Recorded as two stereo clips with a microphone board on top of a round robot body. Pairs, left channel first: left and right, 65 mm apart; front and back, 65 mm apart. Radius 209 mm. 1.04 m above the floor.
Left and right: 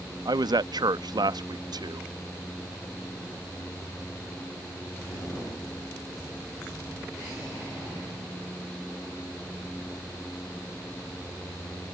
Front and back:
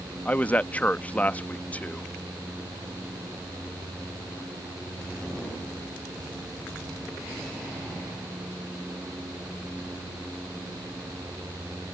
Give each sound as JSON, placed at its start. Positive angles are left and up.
{"t": 0.2, "sound": "a man speaking", "azimuth_deg": -70}